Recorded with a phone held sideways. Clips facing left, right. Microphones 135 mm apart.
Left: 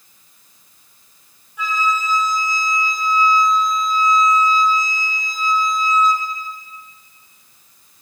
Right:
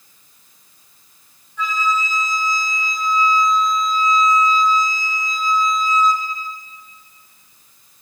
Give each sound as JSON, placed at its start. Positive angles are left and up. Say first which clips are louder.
{"t": 1.6, "sound": "a flute", "louder": "even", "side_deg": 10, "distance_m": 4.0}